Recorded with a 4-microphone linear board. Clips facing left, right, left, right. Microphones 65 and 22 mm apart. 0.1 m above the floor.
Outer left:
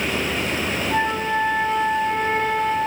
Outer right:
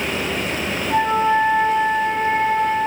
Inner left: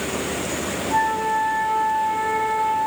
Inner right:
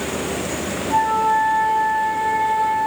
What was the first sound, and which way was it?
A flute, 30° right (ahead or behind).